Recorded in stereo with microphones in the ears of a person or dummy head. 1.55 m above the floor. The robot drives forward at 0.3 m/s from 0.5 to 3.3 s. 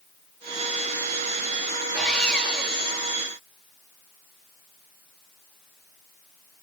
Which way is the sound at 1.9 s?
Centre (ahead or behind).